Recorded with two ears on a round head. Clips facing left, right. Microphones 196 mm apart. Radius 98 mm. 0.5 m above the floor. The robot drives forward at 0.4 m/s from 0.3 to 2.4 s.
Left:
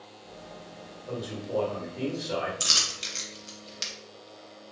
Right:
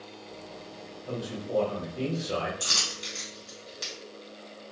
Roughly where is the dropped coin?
Left.